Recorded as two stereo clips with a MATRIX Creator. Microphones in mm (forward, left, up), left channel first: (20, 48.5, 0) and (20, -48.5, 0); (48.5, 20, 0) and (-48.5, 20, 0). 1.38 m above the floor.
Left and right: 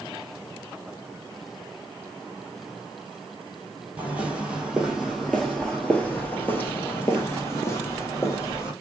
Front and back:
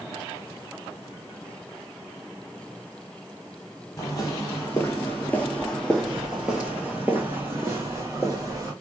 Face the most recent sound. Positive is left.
turn(degrees=130)